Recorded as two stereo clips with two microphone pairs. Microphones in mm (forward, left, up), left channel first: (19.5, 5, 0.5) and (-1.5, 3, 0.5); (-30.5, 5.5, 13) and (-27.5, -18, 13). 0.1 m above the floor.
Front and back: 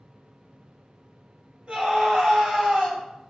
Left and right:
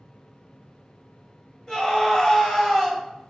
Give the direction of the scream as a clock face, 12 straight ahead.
7 o'clock.